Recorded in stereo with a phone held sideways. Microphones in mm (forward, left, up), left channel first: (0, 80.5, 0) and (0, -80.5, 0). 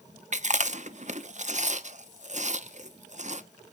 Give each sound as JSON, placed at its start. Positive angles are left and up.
{"t": 0.3, "sound": "chewing", "side_deg": -50, "distance_m": 0.7}